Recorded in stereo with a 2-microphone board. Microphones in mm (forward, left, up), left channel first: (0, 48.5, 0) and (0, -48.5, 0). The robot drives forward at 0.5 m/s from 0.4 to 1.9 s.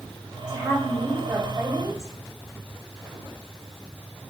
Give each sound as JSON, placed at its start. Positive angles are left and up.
{"t": 0.5, "sound": "a woman speaking", "side_deg": -10, "distance_m": 1.6}